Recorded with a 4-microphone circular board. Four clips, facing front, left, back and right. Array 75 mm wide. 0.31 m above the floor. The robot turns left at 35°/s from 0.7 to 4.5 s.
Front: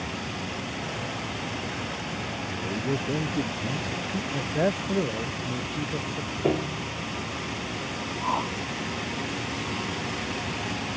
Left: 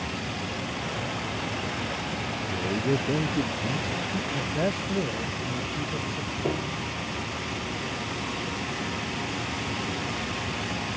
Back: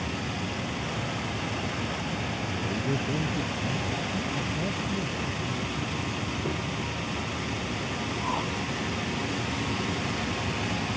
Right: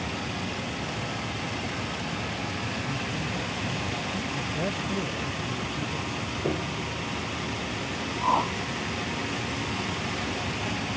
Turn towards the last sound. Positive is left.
turn(degrees=-75)